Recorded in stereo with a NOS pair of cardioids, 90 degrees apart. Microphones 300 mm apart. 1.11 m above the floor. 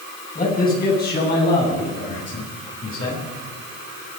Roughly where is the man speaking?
Ahead left.